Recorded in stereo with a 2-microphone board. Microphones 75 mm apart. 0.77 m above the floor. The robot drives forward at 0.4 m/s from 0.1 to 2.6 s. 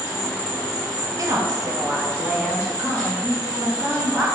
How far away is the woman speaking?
About 0.6 m.